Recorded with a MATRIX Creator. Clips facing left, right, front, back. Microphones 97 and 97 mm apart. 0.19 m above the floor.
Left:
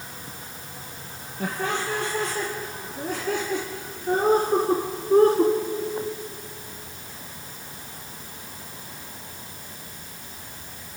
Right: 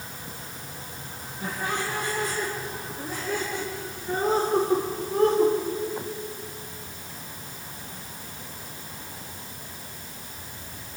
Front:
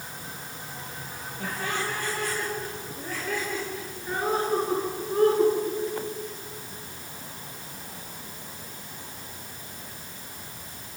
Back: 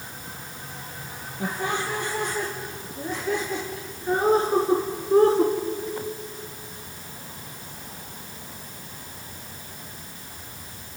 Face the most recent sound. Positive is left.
turn(degrees=135)